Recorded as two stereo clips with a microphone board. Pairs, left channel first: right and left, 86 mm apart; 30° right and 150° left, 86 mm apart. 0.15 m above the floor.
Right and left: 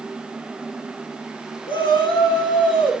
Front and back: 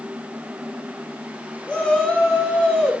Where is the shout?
105° right, 9 m; by 2.9 s 110° right, 10.5 m.